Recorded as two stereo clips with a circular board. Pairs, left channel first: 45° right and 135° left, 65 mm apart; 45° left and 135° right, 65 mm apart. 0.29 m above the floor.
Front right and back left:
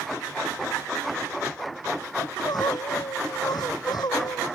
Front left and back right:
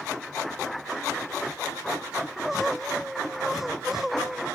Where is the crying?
50° right.